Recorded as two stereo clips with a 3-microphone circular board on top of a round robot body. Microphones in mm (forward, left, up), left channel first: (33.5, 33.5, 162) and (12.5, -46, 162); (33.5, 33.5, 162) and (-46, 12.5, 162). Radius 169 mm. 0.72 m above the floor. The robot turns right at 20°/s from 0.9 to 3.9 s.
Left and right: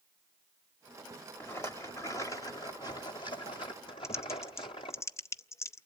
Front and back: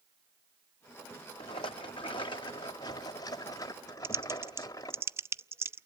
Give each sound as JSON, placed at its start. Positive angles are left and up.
{"t": 1.4, "sound": "a rattle", "azimuth_deg": 15, "distance_m": 0.6}
{"t": 4.0, "sound": "typing on a keyboard", "azimuth_deg": 130, "distance_m": 0.6}